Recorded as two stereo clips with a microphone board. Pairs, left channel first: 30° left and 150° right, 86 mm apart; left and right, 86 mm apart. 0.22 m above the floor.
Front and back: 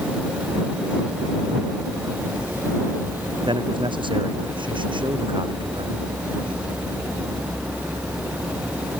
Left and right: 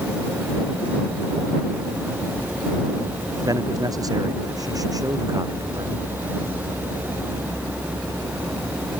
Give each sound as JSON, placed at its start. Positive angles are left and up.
{"t": 3.4, "sound": "a man speaking", "azimuth_deg": -135}